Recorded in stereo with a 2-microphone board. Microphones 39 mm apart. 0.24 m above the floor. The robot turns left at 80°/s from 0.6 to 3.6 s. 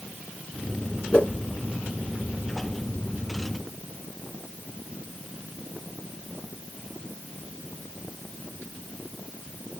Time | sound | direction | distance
1.1 | a whoosh | 40° left (ahead or behind) | 1.2 m